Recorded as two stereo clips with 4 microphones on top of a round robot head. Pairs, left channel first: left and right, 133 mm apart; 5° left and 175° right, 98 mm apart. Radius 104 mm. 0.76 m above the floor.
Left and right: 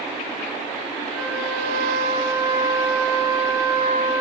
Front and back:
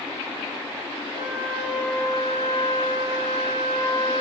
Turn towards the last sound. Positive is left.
turn(degrees=-20)